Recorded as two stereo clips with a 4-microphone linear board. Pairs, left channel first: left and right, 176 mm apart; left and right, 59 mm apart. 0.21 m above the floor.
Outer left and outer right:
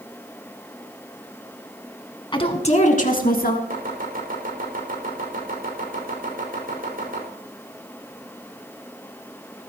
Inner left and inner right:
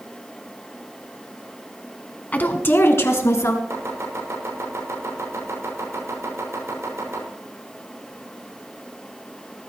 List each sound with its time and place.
2.3 s a woman speaking: 25° left (ahead or behind), 2 m; by 3.6 s 60° left (ahead or behind), 3.5 m
3.7 s chopping: 55° right (ahead or behind), 7 m